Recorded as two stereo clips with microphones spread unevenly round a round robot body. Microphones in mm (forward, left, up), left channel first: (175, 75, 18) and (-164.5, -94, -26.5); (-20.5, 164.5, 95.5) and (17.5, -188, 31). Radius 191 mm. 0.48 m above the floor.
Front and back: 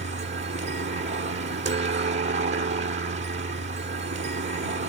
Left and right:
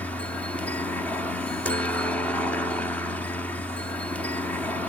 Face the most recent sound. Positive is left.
turn(degrees=-160)